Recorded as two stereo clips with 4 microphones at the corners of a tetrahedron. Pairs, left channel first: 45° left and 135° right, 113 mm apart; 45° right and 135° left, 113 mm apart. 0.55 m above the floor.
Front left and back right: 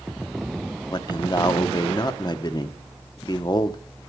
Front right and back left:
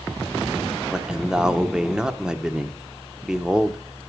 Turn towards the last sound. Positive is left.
turn(degrees=55)